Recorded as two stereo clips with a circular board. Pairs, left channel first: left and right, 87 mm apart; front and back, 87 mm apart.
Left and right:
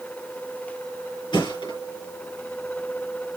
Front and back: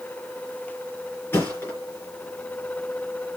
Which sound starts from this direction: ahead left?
A thud, at 1.3 s.